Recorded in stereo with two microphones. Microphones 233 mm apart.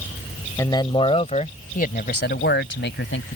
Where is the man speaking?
15° left (ahead or behind); by 3.4 s 55° left (ahead or behind).